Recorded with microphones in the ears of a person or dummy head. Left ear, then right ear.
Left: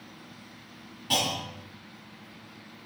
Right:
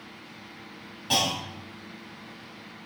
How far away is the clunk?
About 3 m.